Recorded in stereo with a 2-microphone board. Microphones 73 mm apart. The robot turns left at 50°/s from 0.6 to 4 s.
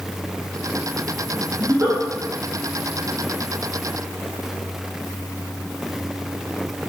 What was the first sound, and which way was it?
A giggle, 25° right (ahead or behind).